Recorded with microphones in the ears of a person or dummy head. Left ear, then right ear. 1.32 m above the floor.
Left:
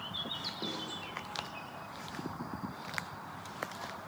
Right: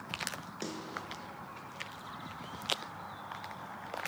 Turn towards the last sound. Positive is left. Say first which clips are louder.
# right 1 dB
turn(degrees=-75)  # may be behind; listen again after turning